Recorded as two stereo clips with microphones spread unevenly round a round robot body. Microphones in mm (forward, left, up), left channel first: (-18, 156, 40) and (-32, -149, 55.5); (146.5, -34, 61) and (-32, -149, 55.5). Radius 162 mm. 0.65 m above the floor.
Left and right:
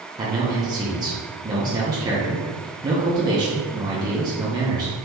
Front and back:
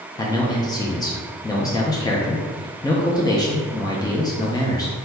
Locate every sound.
0.2 s a man speaking: 25° right, 0.6 m